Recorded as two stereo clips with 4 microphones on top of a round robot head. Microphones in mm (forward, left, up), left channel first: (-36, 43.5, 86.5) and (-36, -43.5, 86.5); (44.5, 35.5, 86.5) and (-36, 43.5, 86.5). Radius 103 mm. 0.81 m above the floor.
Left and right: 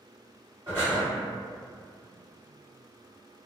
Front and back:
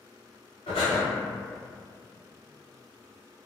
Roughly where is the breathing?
Ahead.